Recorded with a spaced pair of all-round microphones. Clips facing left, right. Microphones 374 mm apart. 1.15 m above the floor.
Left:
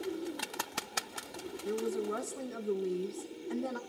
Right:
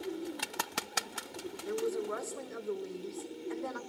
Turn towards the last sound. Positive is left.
turn(degrees=45)  # may be behind; listen again after turning